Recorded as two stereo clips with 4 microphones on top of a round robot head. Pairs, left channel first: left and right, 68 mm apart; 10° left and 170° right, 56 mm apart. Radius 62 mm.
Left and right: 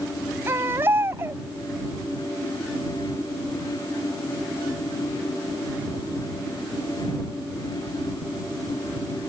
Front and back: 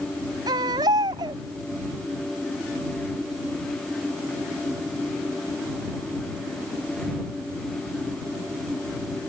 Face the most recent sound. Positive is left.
turn(degrees=-155)